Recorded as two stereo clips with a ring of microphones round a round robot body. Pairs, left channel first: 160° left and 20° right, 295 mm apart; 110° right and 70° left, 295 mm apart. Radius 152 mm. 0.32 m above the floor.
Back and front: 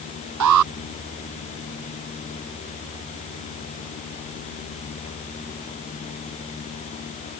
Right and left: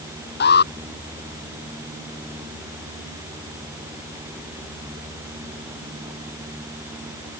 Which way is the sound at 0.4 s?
55° right.